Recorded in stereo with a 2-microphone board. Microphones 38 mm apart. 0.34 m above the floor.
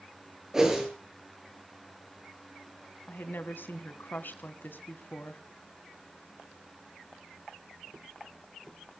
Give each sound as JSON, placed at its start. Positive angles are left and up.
{"t": 0.5, "sound": "a whoosh", "side_deg": -15, "distance_m": 7.5}
{"t": 3.1, "sound": "a woman speaking", "side_deg": 55, "distance_m": 2.0}